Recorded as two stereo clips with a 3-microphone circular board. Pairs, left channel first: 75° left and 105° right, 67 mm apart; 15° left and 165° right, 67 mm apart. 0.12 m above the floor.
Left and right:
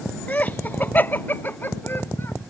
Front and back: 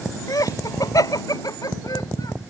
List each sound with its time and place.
0.3 s laughter: 10° left; by 2.4 s 20° left